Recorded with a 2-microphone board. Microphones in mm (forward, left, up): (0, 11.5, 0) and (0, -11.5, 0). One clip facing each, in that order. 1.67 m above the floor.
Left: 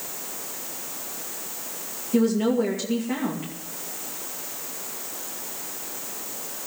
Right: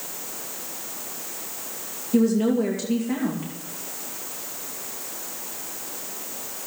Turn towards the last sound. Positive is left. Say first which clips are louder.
# right 1 dB
turn(degrees=5)  # may be behind; listen again after turning